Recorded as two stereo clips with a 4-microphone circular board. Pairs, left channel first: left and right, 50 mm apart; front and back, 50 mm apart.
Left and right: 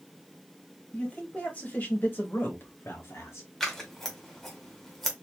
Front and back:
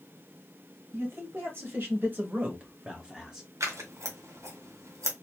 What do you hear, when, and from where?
0.9 s a man speaking: 150° left, 2.5 m; by 3.5 s 100° left, 1.9 m
3.6 s scissors: 175° left, 1.7 m